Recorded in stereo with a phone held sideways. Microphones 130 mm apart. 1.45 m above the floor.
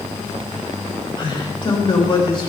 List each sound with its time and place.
1.2 s a man speaking: 40° left (ahead or behind), 7 m